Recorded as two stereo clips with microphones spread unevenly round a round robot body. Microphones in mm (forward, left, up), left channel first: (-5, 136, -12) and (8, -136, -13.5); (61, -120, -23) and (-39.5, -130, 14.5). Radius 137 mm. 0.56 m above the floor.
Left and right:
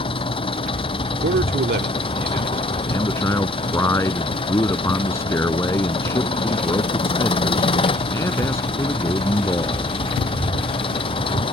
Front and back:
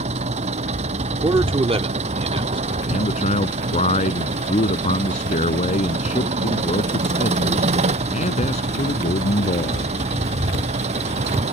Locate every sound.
0.0 s an engine running: 165° left
1.2 s a man speaking: 135° right
2.9 s a man speaking: 10° left